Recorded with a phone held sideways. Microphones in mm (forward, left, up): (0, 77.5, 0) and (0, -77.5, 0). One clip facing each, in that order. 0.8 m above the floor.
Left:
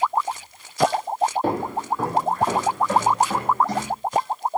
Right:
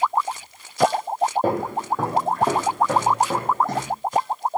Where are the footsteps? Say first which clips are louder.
Right 1 dB; 50° right (ahead or behind), 1.5 m; by 3.9 s 55° right (ahead or behind), 2 m.